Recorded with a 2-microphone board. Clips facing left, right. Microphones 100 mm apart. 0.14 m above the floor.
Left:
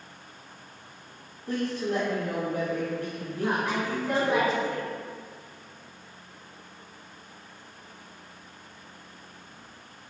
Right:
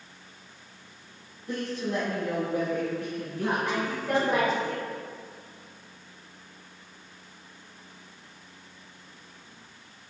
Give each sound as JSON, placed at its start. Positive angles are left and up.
{"t": 1.5, "sound": "a woman speaking", "side_deg": 45, "distance_m": 1.9}
{"t": 3.4, "sound": "a woman speaking", "side_deg": 5, "distance_m": 1.2}